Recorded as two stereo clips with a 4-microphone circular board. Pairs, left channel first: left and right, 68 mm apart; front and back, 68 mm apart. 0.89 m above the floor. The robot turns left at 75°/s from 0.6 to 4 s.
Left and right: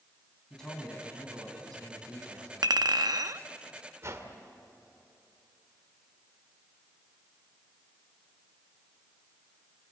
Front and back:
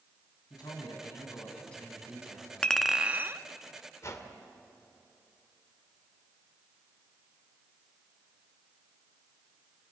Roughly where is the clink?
Right.